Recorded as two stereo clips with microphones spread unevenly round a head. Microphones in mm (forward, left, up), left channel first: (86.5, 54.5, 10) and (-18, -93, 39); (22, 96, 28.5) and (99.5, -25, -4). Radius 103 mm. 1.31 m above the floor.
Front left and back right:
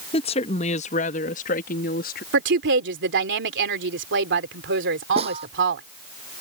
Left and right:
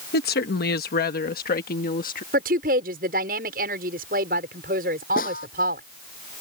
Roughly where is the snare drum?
Behind.